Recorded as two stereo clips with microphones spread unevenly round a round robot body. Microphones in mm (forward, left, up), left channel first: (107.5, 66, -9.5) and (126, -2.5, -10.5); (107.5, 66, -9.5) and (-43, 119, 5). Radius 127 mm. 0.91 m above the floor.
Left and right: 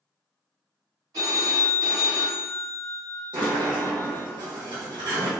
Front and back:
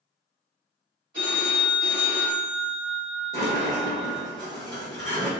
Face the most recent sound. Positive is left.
turn(degrees=-100)